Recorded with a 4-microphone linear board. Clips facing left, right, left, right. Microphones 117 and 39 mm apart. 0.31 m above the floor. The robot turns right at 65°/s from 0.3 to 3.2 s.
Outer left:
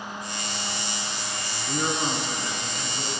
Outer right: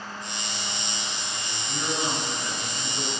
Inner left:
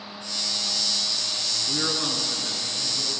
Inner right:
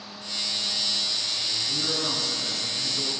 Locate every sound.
1.7 s a man speaking: 115° left, 4.5 m; by 3.1 s 150° right, 4.5 m